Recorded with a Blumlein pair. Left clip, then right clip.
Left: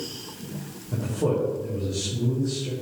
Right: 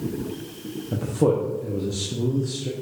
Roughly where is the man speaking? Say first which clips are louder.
Right 4 dB; ahead right.